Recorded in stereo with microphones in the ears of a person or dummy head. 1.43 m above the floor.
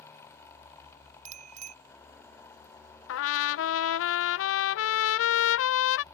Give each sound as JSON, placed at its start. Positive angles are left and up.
{"t": 1.2, "sound": "a bicycle bell", "side_deg": -40}
{"t": 3.1, "sound": "a trumpet", "side_deg": 80}